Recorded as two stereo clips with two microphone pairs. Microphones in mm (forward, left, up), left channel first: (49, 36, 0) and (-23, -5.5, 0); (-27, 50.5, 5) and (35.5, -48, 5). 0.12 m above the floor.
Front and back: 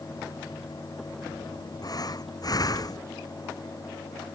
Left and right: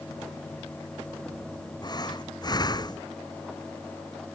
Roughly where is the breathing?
Left.